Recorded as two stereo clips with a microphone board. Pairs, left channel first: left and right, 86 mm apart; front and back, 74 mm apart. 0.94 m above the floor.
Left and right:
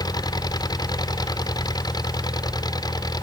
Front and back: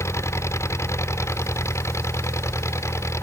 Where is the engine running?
50° left.